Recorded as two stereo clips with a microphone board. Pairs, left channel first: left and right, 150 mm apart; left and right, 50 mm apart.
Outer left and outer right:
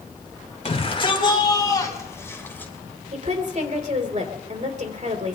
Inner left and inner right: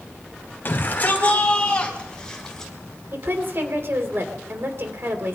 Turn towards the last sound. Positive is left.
turn(degrees=-55)  # may be behind; listen again after turning